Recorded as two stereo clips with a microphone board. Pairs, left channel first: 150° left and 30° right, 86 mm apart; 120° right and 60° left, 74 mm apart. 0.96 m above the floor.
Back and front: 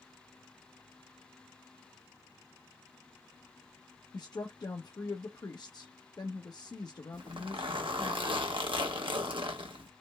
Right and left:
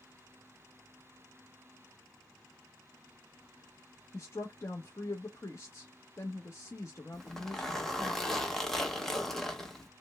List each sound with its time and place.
4.1 s a woman speaking: 175° right, 0.7 m
7.1 s a zipper: 35° right, 1.0 m